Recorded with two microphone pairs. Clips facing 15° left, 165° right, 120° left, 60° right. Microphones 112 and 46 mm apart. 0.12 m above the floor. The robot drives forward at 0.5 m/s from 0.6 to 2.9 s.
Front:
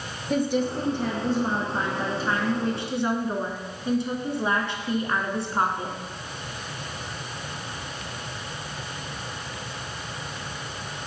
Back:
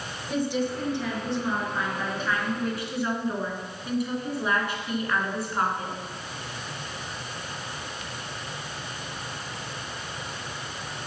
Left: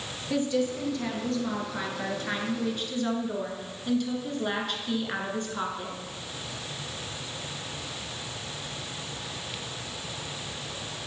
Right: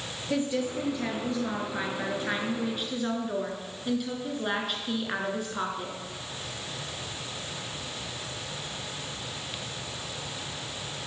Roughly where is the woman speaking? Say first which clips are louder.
Front 3 dB, left 2 dB; ahead.